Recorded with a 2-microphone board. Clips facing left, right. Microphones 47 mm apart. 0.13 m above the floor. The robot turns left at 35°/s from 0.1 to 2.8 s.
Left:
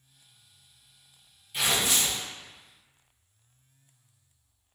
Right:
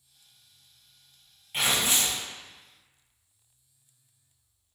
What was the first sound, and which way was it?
Tearing paper, 45° right (ahead or behind).